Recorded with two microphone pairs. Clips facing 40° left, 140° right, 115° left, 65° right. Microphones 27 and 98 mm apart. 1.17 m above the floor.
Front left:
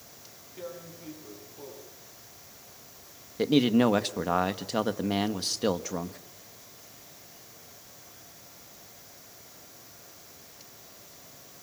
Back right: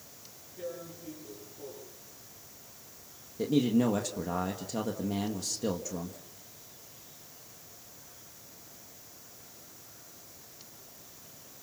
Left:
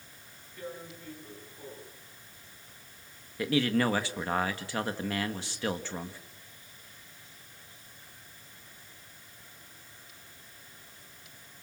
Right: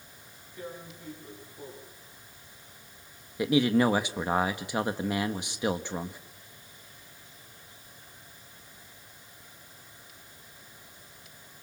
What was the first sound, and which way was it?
Tearing paper, 10° left.